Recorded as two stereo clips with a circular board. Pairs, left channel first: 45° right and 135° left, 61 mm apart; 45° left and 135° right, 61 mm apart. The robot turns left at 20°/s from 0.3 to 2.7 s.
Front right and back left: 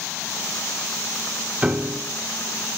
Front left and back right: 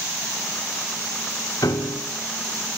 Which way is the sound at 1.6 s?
65° left.